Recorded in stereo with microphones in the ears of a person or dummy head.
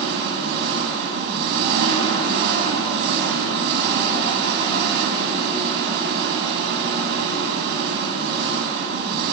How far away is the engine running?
About 5.5 m.